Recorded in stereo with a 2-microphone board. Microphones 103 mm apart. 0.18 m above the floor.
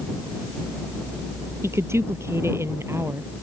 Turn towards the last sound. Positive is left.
turn(degrees=-25)  # may be behind; listen again after turning